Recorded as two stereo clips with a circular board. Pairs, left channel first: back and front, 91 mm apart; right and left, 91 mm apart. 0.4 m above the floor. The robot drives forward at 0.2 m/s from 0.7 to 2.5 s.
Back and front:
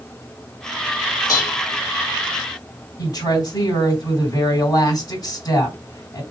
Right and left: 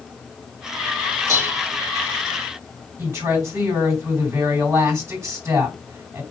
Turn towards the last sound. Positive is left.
turn(degrees=145)